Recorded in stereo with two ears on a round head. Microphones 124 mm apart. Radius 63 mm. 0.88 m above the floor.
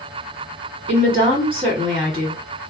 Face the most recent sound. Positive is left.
turn(degrees=-45)  # may be behind; listen again after turning